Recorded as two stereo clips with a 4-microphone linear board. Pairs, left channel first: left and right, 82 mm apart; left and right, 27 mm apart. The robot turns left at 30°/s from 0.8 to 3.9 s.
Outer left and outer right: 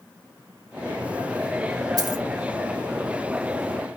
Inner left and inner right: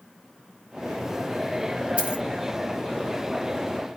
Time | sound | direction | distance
2.0 | a dropped coin | 50° right (ahead or behind) | 1.5 m